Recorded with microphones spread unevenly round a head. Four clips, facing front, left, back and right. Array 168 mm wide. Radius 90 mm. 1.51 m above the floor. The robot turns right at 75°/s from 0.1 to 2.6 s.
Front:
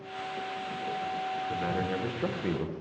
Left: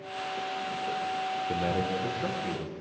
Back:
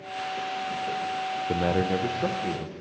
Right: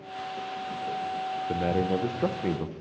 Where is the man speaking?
160° right, 0.6 m; by 2.7 s 75° right, 0.6 m.